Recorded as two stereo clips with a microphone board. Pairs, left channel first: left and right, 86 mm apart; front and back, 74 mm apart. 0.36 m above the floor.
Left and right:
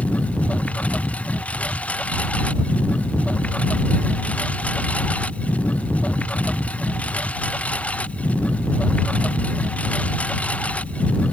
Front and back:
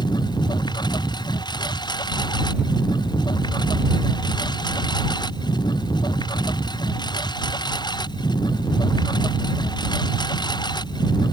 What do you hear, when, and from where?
0.0 s a lawn mower: 15° left